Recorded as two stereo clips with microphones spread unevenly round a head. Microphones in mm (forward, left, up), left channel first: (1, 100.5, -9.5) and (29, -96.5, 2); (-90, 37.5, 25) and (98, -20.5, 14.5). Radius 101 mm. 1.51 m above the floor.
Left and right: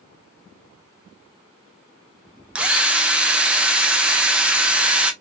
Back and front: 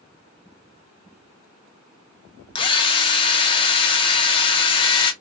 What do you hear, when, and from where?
2.5 s a drill: 155° right, 0.7 m